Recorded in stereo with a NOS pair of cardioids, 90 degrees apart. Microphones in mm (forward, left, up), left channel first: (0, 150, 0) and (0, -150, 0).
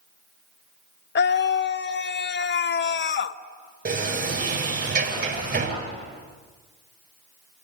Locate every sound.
1.1 s a scream: 35° left, 1.0 m
3.9 s a sliding door: 30° right, 8 m